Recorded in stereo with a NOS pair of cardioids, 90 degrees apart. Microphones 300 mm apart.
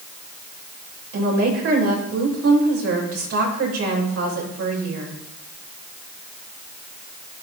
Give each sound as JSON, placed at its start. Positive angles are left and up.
{"t": 1.1, "sound": "a woman speaking", "azimuth_deg": -55, "distance_m": 8.0}